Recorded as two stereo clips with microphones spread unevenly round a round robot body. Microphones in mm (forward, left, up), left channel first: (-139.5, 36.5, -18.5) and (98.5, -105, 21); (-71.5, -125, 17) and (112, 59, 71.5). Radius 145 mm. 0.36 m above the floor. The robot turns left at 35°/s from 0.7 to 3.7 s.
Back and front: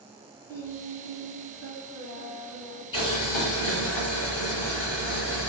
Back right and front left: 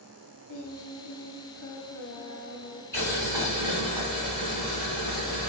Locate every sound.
0.5 s singing: 130° right, 0.9 m; by 2.8 s 155° left, 0.9 m
2.9 s boiling: 150° left, 1.8 m; by 5.5 s 125° left, 1.8 m